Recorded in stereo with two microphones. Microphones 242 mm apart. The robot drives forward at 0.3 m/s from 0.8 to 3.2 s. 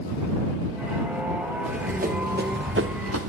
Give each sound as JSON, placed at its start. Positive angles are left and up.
{"t": 1.6, "sound": "running footsteps", "side_deg": -30, "distance_m": 2.5}